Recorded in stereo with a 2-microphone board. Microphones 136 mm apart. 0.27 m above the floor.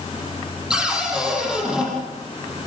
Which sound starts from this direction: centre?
A cupboard door, at 0.7 s.